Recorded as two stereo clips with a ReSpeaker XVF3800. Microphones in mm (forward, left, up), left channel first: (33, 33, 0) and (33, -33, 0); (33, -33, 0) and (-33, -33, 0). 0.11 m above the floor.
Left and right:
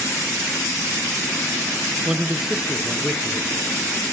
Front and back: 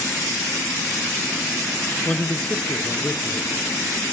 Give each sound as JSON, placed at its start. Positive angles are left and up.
{"t": 2.0, "sound": "a man speaking", "azimuth_deg": -35, "distance_m": 1.1}